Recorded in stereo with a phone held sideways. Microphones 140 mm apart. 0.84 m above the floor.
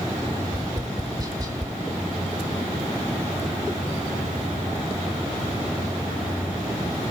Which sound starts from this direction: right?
Tapping, at 0.5 s.